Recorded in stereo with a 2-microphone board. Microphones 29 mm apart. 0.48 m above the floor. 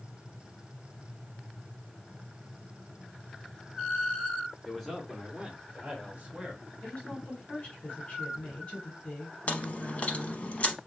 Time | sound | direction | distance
4.7 | a man speaking | 10° left (ahead or behind) | 0.9 m
6.8 | a woman speaking | 30° left (ahead or behind) | 1.7 m
9.5 | chewing | 45° left (ahead or behind) | 0.7 m